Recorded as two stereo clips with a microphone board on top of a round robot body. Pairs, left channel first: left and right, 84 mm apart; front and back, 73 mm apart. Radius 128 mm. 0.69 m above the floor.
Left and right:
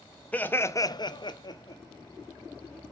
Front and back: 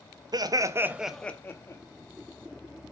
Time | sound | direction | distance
0.3 | laughter | 165° left | 1.2 m